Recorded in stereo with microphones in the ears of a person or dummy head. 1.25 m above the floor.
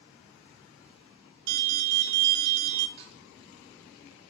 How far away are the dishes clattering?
About 1.7 m.